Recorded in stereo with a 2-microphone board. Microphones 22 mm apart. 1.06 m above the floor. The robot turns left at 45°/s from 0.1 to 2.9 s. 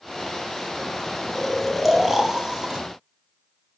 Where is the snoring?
20° left, 1.1 m; by 2.8 s 50° right, 1.1 m.